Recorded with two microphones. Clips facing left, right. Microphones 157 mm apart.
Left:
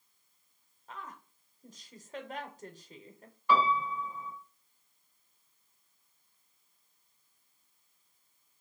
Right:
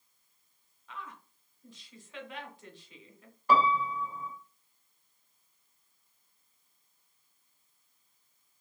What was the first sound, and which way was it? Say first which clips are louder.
A woman speaking: even; 45° left (ahead or behind).